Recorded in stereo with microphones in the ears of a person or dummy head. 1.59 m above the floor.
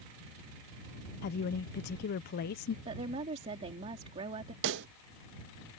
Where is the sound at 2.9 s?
35° right (ahead or behind).